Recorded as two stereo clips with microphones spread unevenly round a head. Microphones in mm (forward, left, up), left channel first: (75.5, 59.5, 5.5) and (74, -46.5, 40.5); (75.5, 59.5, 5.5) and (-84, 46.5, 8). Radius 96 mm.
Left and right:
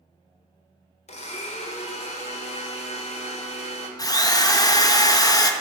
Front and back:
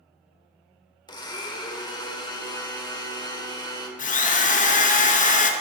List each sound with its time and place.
1.1 s a blender: 70° left, 1.3 m
4.0 s a drill: 40° left, 0.9 m